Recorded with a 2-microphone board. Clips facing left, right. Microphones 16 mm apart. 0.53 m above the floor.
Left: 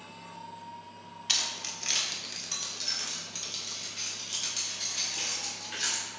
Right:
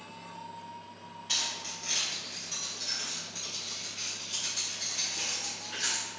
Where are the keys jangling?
45° left (ahead or behind), 0.6 m; by 6.1 s 40° left (ahead or behind), 3 m.